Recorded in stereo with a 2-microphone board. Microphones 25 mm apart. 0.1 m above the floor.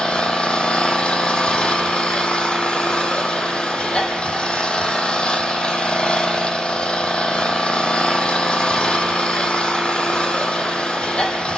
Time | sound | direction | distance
0.0 | an engine running | 40° left (ahead or behind) | 1.6 m